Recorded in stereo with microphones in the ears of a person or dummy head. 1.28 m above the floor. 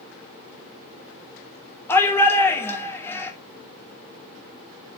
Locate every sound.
1.9 s a shout: 15° left (ahead or behind), 2.5 m